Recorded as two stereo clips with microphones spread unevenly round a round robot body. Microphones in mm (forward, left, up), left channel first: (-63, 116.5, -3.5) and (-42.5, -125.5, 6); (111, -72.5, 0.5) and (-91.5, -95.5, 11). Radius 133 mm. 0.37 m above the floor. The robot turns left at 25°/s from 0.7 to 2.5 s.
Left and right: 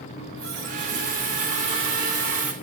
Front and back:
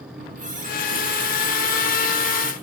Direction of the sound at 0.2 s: 125° right.